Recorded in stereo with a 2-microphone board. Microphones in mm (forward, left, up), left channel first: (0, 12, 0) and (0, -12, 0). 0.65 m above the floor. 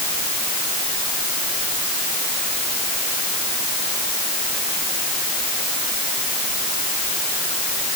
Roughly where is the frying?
No frying in this recording.